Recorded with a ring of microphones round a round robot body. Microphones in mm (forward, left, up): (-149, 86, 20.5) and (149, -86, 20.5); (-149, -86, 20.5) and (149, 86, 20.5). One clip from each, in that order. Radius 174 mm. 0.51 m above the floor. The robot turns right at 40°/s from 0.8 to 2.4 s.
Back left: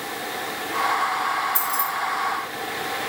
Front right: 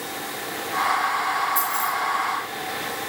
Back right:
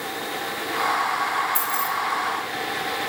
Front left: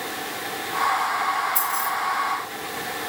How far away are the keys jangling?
About 3 m.